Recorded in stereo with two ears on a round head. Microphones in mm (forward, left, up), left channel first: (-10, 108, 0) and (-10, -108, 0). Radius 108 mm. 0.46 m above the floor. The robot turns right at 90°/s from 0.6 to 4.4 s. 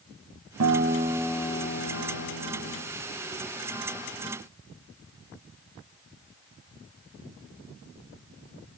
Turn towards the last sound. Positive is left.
turn(degrees=-90)